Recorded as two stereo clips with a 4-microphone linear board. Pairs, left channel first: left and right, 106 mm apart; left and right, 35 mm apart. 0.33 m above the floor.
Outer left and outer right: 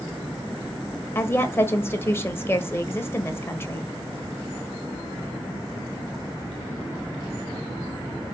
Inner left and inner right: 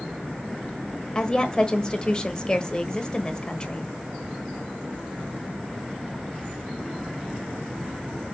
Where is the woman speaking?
25° left (ahead or behind), 1.2 m.